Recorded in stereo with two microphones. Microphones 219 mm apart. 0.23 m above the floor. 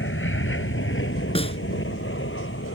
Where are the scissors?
I don't hear scissors.